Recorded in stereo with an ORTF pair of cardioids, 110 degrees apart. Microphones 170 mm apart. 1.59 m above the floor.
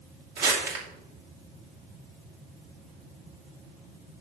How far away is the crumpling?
About 2.5 m.